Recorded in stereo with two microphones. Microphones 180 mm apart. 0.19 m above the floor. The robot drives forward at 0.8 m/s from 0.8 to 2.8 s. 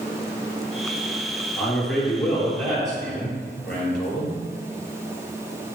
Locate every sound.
1.6 s a man speaking: 5° left (ahead or behind), 4 m